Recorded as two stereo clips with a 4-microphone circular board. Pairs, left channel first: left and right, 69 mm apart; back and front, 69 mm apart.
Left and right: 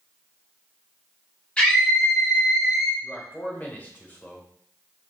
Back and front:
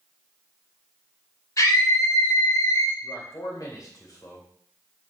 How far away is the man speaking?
About 2.5 m.